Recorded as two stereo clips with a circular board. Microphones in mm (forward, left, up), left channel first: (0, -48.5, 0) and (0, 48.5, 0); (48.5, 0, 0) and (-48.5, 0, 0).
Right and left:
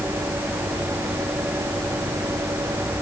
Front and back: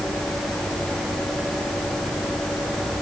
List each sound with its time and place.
Only background noise.